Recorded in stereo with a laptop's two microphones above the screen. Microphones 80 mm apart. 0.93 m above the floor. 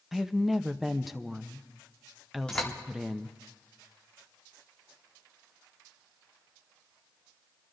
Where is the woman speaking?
Centre (ahead or behind), 0.7 m.